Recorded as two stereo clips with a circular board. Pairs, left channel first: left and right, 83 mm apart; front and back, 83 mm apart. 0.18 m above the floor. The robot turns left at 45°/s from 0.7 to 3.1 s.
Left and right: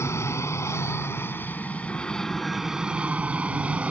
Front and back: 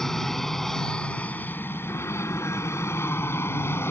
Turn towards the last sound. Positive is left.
turn(degrees=-25)